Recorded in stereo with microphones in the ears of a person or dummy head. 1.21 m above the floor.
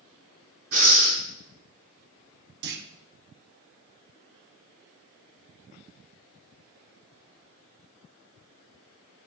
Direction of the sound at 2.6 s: 45° right (ahead or behind).